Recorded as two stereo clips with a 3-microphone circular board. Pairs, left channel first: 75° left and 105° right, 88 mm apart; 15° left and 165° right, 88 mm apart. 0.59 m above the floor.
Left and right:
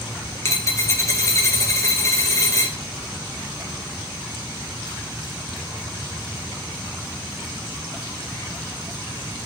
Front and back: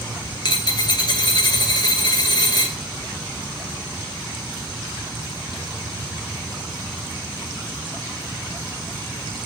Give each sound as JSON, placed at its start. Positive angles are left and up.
{"t": 0.5, "sound": "a dropped coin", "azimuth_deg": 25, "distance_m": 0.5}